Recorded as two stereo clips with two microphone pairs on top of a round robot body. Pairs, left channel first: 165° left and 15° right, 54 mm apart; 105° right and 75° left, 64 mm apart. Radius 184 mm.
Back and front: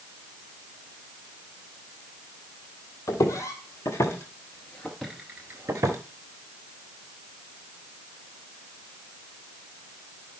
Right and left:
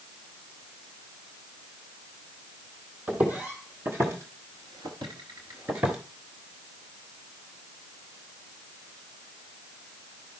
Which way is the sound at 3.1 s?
145° left.